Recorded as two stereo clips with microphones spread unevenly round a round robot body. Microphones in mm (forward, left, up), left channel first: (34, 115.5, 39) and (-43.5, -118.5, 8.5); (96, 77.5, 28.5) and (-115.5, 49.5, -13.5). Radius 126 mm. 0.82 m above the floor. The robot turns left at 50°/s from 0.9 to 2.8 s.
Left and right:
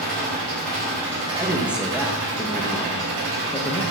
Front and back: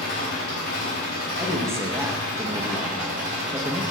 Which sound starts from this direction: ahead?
An engine running, at 0.0 s.